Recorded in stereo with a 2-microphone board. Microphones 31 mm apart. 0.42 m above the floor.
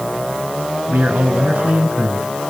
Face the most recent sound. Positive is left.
turn(degrees=-65)  # may be behind; listen again after turning